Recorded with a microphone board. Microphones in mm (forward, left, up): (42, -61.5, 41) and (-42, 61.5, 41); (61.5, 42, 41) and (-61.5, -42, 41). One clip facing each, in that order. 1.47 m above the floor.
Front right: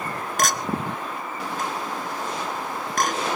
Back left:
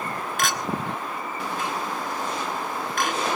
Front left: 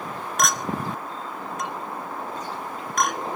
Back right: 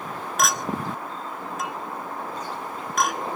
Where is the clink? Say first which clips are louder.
Front right 3 dB, even; 60° right, 0.9 m.